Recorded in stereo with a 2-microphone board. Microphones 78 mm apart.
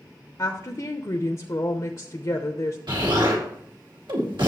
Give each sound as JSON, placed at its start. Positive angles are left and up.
{"t": 0.4, "sound": "a woman speaking", "side_deg": 50, "distance_m": 0.8}
{"t": 2.9, "sound": "an explosion", "side_deg": -75, "distance_m": 2.5}